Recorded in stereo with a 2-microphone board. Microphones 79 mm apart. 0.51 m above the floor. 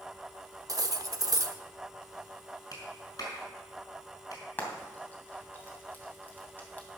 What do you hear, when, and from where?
0.7 s cutlery clinking: 50° right (ahead or behind), 0.7 m
2.7 s a clap: 50° left (ahead or behind), 4.5 m
4.6 s frying: 25° left (ahead or behind), 2.5 m